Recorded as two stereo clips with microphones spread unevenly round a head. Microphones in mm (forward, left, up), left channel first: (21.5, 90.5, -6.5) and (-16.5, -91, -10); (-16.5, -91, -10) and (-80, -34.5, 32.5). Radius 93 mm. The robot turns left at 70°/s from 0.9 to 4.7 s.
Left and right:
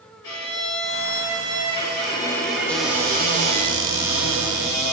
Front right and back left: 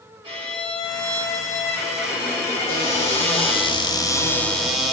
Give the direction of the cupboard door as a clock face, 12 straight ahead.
12 o'clock.